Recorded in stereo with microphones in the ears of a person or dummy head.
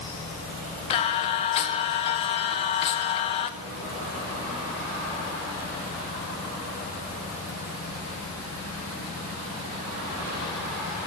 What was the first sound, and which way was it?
Singing, 30° left (ahead or behind).